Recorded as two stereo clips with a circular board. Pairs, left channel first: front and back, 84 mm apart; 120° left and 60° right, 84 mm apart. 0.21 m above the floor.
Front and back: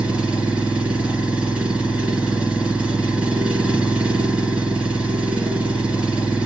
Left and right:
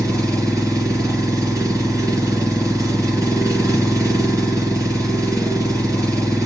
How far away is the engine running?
About 1.8 m.